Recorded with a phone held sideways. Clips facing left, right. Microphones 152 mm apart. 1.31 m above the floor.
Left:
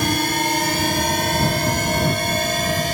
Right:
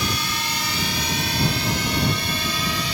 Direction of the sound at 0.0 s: 50° left (ahead or behind).